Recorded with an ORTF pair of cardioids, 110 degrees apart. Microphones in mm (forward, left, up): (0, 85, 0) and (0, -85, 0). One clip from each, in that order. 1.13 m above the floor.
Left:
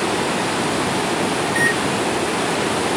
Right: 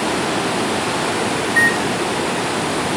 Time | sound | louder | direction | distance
1.4 | a microwave | right 4 dB | 40° left | 1.6 m